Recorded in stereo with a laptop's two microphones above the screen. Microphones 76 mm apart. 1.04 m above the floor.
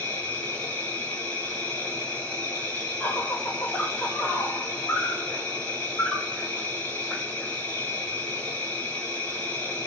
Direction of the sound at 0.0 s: 20° left (ahead or behind).